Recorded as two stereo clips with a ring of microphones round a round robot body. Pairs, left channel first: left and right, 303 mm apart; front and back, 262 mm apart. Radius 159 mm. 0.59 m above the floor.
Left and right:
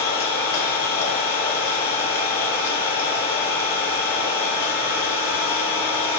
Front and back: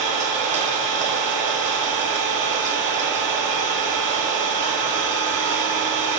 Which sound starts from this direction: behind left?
An engine running, at 0.0 s.